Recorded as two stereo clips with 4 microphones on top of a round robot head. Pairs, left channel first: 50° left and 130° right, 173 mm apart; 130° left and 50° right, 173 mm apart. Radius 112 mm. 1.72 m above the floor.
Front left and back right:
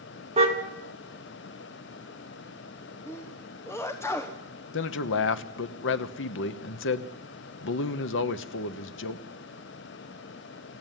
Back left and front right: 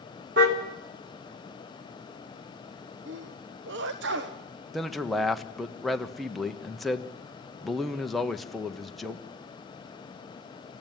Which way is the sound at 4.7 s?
45° left.